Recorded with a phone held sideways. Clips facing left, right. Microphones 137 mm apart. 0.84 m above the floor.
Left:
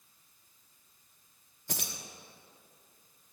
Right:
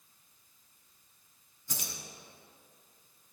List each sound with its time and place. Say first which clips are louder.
1.7 s keys jangling: left 3 dB; 65° left (ahead or behind), 1.2 m